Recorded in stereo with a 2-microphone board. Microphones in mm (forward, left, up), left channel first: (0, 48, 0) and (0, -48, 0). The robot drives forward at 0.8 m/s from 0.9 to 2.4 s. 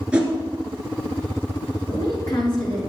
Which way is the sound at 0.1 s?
10° right (ahead or behind).